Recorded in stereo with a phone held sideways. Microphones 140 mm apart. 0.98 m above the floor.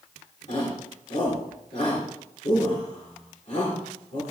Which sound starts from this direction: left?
A shout, at 0.5 s.